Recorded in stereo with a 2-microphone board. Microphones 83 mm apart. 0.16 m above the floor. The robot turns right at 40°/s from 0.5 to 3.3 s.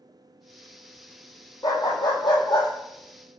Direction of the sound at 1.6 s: 50° left.